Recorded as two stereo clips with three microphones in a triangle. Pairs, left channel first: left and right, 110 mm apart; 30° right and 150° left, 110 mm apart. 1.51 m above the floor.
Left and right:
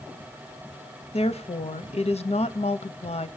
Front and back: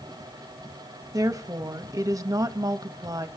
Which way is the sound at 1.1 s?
95° left.